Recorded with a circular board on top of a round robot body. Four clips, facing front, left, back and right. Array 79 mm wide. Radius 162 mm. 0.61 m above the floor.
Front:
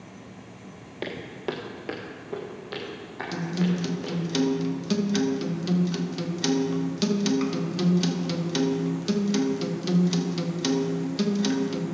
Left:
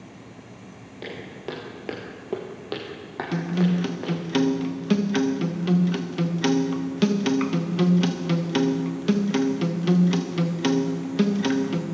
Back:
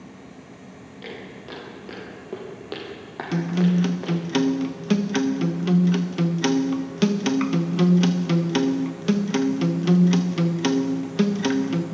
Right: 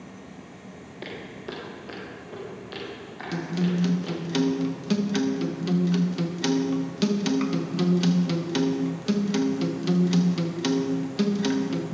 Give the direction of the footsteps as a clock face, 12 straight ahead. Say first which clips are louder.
Left 2 dB, front 6 dB; 12 o'clock.